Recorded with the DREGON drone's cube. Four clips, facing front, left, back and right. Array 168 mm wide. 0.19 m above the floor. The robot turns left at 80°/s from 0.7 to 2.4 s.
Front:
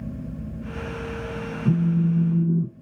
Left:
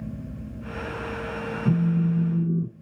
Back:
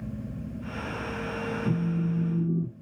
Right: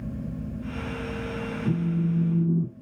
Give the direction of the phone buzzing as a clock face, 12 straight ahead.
11 o'clock.